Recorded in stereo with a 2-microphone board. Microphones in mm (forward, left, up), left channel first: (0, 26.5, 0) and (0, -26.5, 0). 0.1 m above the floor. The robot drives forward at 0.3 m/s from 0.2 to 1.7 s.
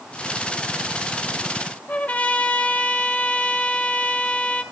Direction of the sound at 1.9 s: 25° left (ahead or behind).